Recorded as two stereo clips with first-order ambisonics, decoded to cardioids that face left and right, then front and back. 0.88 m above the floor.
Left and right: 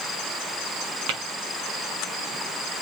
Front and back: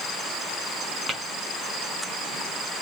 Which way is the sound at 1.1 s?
100° right.